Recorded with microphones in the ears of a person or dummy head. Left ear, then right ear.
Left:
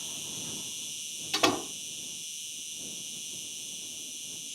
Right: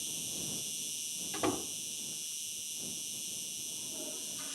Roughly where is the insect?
Centre.